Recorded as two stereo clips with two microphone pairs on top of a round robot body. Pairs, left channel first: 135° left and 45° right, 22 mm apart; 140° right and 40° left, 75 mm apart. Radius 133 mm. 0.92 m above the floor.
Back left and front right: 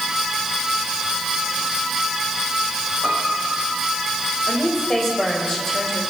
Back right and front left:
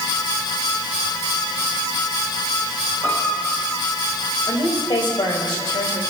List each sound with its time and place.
3.0 s a piano: 105° right, 8.5 m
4.5 s a woman speaking: 160° right, 5 m